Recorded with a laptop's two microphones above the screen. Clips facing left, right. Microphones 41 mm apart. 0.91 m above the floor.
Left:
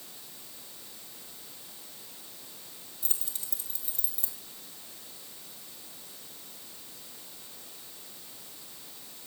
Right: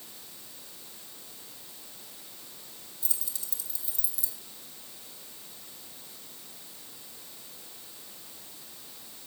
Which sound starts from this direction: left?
Keys jangling, at 3.0 s.